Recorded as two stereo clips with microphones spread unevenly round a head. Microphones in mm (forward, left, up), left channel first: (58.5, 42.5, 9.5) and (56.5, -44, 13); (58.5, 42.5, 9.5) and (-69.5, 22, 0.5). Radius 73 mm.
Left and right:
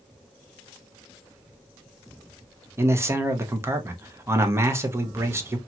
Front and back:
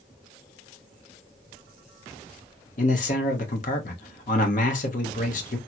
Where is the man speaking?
30° right, 0.8 m.